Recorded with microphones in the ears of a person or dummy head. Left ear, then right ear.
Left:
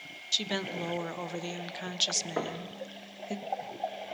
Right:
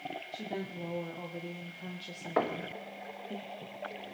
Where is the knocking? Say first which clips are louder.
Right 3 dB; 30° right (ahead or behind), 0.9 m.